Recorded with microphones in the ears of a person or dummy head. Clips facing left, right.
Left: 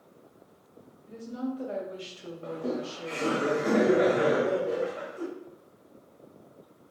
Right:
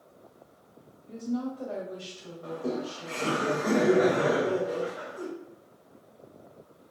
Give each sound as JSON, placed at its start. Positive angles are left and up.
{"t": 1.1, "sound": "a woman speaking", "side_deg": 15, "distance_m": 1.2}
{"t": 2.4, "sound": "laughter", "side_deg": 40, "distance_m": 1.1}